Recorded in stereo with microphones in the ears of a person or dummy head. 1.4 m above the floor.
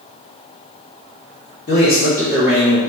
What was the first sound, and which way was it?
A man speaking, 45° left (ahead or behind).